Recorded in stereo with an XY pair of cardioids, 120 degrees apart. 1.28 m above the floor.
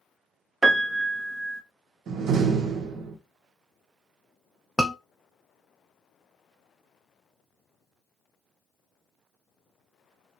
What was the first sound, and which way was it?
A piano, 25° right.